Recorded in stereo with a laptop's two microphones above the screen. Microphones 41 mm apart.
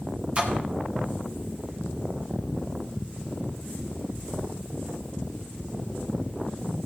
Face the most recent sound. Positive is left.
turn(degrees=-25)  # may be behind; listen again after turning